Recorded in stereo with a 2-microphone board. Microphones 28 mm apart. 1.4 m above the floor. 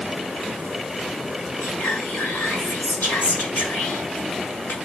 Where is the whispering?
75° left (ahead or behind), 6 m.